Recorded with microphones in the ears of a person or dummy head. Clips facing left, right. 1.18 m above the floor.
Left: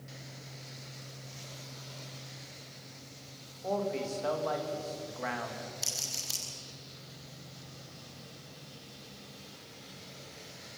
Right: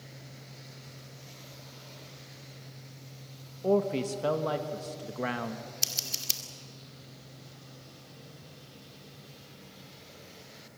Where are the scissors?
35° right (ahead or behind), 2 m.